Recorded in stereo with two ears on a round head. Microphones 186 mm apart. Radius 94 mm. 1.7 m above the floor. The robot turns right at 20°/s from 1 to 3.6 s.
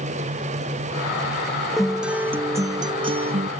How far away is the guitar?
About 0.7 m.